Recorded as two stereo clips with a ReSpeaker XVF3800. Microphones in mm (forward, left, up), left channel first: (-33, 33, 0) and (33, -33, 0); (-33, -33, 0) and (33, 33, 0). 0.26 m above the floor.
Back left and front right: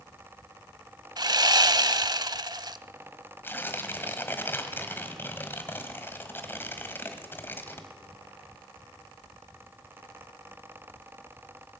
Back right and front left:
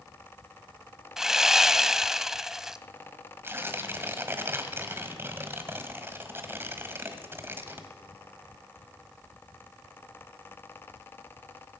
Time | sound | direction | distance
1.2 | sawing | 40° right | 0.6 m
3.4 | tearing paper | 85° left | 1.5 m